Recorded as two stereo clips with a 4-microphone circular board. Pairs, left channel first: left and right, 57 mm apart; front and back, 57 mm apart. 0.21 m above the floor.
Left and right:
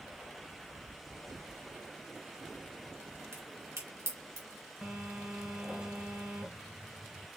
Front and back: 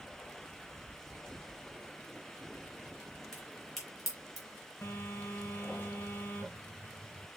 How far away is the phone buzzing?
About 1.6 m.